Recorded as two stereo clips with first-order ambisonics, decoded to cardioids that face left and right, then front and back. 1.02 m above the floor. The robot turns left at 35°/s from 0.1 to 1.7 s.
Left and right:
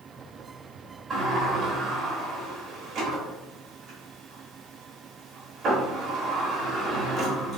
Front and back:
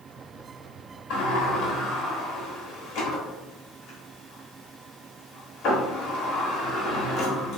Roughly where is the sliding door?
Ahead.